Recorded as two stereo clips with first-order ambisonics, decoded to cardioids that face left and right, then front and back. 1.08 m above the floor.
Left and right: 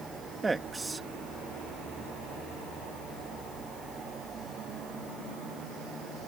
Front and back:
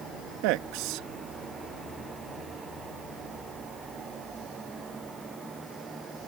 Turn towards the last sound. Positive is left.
turn(degrees=-170)